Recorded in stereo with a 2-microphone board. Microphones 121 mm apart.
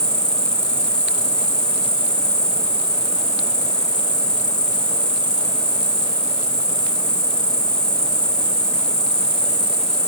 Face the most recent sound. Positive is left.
turn(degrees=5)  # may be behind; listen again after turning